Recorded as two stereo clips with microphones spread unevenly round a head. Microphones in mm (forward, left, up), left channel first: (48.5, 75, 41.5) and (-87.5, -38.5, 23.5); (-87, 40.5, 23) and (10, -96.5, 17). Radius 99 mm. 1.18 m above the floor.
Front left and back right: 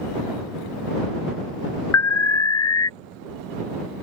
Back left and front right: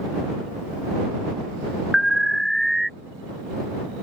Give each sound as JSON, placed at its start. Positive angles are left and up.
{"t": 1.9, "sound": "an alarm", "azimuth_deg": 35}